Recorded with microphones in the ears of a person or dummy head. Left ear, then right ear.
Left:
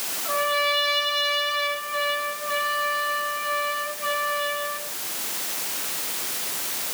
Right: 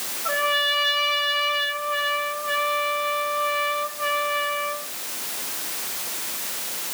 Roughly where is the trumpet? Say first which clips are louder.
Right 1 dB; right.